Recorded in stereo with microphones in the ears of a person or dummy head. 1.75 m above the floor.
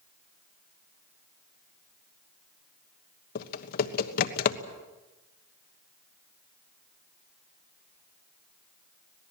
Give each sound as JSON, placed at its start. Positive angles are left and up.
{"t": 3.4, "sound": "typing on a keyboard", "side_deg": 55, "distance_m": 1.2}